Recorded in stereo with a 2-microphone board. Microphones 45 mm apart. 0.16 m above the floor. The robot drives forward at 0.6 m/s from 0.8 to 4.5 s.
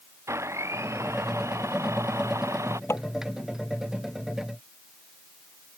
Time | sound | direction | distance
0.3 | a blender | 85° right | ?
2.9 | tapping | 75° left (ahead or behind) | ?